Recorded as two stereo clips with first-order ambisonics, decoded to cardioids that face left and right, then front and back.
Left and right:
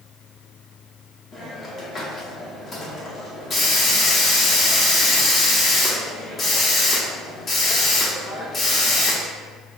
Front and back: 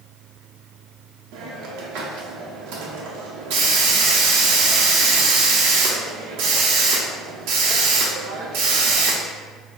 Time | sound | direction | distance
1.3 | a hiss | 160° left | 0.9 m